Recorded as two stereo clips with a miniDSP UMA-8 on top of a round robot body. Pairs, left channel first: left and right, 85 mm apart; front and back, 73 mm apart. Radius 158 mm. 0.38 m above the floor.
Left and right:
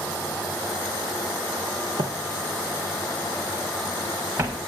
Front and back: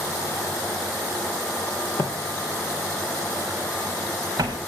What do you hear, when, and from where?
2.0 s footsteps: 55° right, 0.6 m; by 4.6 s 145° right, 3 m